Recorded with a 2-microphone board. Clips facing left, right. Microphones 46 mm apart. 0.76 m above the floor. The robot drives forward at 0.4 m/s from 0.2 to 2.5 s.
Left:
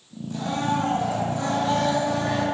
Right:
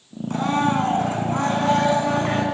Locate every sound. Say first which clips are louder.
0.3 s a blender: right 5 dB; 55° right (ahead or behind), 7 m; by 2.4 s 50° right (ahead or behind), 7.5 m